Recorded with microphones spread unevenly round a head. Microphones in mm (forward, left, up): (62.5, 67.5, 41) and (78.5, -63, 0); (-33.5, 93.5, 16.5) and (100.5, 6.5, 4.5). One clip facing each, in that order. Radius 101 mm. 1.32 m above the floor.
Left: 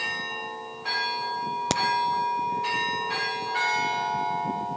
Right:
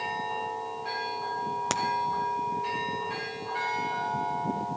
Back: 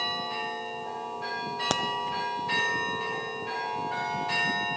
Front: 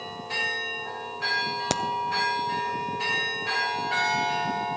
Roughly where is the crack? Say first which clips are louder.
Left 5 dB, front 2 dB; ahead left.